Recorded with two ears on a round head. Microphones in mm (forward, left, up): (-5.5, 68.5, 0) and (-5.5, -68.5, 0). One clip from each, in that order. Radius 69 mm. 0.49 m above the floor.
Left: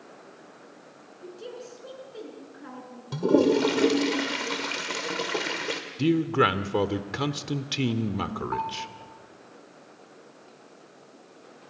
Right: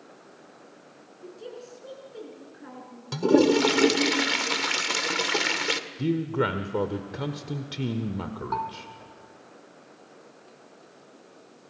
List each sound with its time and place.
1.2 s a woman speaking: 10° left (ahead or behind), 6 m
3.1 s a toilet flushing: 45° right (ahead or behind), 1.5 m
6.0 s a man speaking: 50° left (ahead or behind), 1.1 m
8.5 s a bell: 80° right, 4 m